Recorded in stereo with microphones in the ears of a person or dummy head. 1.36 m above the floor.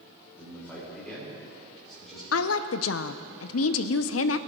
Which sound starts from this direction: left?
A woman speaking, at 2.3 s.